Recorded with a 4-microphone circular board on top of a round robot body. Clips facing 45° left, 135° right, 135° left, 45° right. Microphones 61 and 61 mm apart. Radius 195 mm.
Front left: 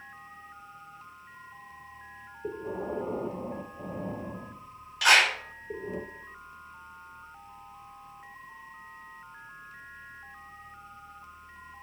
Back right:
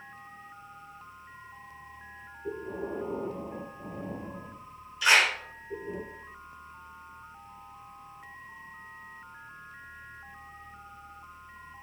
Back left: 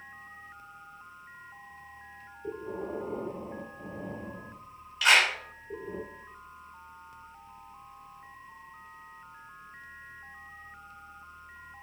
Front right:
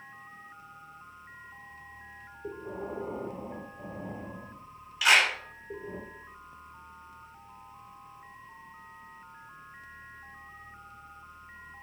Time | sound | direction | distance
2.4 | breathing | 30° left | 0.9 m
5.0 | a clap | 40° left | 3 m